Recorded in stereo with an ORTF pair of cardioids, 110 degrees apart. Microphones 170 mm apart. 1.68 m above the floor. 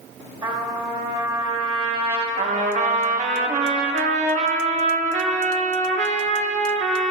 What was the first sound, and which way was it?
A trumpet, 25° right.